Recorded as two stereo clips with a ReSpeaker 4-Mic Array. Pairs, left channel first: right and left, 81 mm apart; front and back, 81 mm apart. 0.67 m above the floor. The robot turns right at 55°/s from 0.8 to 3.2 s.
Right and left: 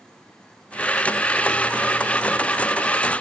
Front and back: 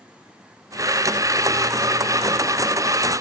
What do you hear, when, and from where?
Only background noise.